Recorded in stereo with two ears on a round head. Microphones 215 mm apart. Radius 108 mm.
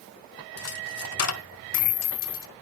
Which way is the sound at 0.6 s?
75° left (ahead or behind).